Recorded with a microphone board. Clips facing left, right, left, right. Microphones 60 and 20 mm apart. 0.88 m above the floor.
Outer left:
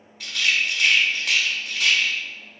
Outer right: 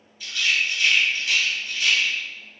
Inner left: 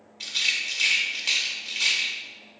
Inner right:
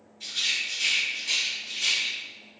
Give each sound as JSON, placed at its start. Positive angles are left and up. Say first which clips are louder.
{"t": 0.2, "sound": "a rattle", "louder": "outer left 1 dB, inner left 2 dB", "side_deg": 65, "distance_m": 0.7}